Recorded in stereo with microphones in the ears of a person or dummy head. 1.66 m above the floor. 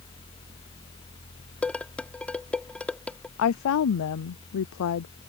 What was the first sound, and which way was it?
Dishes clattering, 5° left (ahead or behind).